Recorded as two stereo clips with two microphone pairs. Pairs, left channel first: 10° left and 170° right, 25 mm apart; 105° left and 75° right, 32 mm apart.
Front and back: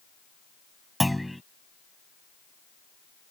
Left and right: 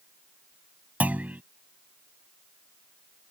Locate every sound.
1.0 s a clunk: 80° right